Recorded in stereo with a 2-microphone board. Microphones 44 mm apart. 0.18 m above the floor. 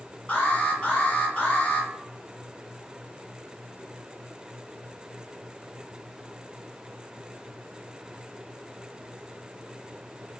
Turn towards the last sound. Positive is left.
turn(degrees=30)  # may be behind; listen again after turning